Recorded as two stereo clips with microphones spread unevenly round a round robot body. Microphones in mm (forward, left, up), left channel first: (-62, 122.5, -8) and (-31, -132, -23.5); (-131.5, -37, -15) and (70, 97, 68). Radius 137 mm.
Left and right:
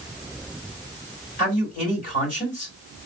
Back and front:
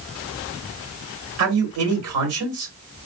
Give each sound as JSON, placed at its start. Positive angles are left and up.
{"t": 1.4, "sound": "a man speaking", "azimuth_deg": 40, "distance_m": 2.0}